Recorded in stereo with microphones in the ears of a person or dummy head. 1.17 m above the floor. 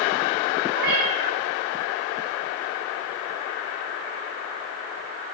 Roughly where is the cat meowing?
Right.